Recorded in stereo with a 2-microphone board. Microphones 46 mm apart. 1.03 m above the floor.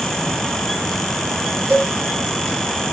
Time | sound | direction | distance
1.7 | a cowbell | 55° right (ahead or behind) | 1.7 m